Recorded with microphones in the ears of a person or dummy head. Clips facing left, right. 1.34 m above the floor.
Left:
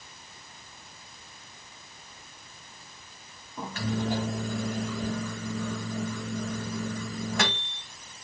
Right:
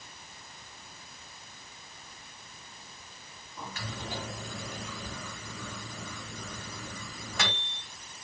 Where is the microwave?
45° left (ahead or behind), 1.5 m.